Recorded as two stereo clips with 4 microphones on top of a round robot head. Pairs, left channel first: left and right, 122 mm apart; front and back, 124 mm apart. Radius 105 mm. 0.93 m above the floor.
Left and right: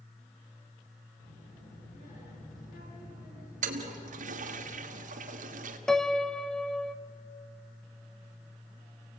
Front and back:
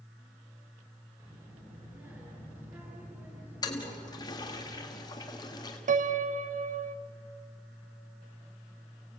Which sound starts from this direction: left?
A child speaking, at 1.2 s.